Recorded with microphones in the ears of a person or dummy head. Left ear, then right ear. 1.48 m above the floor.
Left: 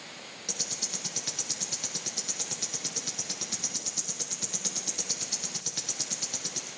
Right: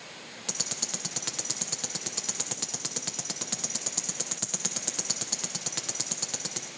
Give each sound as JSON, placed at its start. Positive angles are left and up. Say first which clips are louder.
{"t": 0.5, "sound": "ticking", "louder": "even", "side_deg": -30, "distance_m": 1.0}